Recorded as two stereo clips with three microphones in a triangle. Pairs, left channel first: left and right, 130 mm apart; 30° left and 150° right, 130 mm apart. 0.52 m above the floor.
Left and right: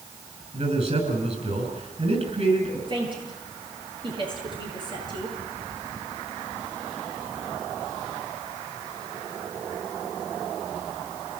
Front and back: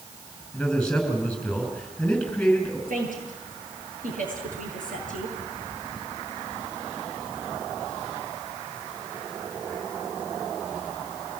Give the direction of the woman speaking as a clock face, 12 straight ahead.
5 o'clock.